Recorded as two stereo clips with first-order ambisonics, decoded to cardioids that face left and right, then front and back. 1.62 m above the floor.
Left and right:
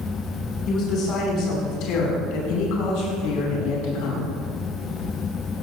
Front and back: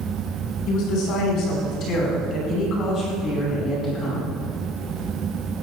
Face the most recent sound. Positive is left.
turn(degrees=85)